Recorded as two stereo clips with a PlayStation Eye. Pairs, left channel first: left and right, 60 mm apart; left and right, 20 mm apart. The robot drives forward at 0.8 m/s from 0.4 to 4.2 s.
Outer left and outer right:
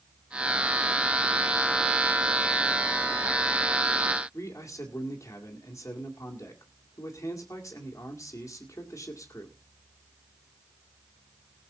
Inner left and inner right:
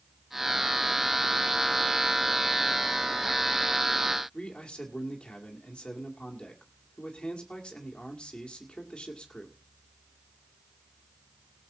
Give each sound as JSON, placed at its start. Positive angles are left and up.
{"t": 4.3, "sound": "a man speaking", "side_deg": 60, "distance_m": 2.0}